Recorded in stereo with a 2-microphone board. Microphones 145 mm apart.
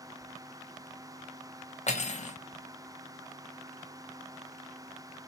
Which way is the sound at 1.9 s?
55° left (ahead or behind).